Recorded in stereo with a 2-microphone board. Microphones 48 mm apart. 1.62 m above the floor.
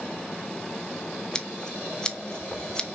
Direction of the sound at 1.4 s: 15° left (ahead or behind).